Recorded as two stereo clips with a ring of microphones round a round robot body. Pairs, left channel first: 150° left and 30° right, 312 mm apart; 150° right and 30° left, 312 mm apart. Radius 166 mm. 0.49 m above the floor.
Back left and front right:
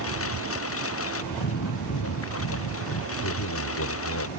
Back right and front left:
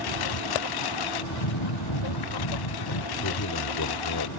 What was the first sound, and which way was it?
A lawn mower, 160° right.